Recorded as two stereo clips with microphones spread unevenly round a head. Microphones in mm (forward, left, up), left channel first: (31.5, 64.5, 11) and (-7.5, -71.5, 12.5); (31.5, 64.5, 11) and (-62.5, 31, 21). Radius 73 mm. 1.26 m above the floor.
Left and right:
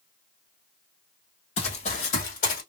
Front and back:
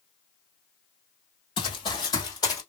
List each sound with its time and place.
1.6 s running footsteps: 45° left, 1.8 m; by 2.6 s 70° left, 2 m